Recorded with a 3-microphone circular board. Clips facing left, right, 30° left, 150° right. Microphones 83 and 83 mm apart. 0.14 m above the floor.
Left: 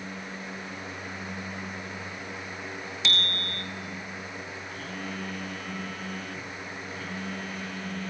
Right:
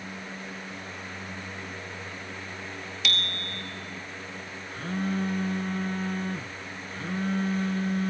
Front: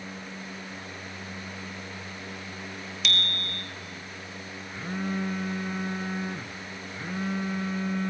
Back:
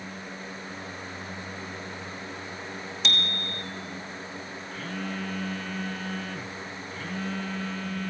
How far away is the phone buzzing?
About 0.8 m.